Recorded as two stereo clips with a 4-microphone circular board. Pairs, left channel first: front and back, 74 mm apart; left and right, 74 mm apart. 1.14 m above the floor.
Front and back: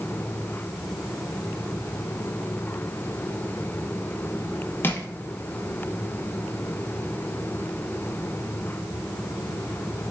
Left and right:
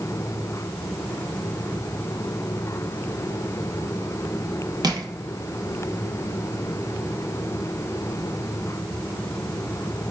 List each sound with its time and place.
4.8 s crushing: 60° right, 0.6 m